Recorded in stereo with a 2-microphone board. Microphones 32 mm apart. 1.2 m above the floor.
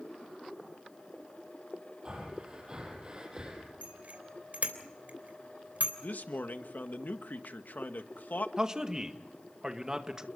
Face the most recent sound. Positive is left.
turn(degrees=-20)  # may be behind; listen again after turning